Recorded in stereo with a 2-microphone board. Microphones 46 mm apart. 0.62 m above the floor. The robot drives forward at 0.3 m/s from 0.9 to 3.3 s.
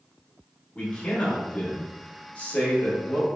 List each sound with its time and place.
0.8 s a man speaking: 20° left (ahead or behind), 0.9 m; by 3.3 s 25° left (ahead or behind), 0.8 m